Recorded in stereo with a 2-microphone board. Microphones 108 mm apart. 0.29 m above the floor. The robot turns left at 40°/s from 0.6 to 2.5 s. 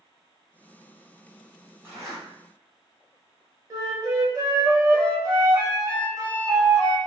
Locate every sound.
1.8 s a zipper: 25° right (ahead or behind), 1.6 m; by 2.2 s 35° right (ahead or behind), 1.6 m
3.7 s a flute: 35° right (ahead or behind), 0.8 m